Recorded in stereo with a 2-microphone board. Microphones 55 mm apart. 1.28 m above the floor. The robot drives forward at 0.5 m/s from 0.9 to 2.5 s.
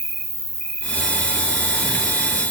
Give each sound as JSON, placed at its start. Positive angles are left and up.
{"t": 0.0, "sound": "an insect", "side_deg": 15, "distance_m": 3.0}